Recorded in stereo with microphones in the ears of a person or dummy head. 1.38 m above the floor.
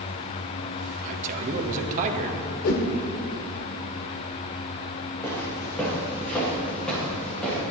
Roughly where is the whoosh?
Left.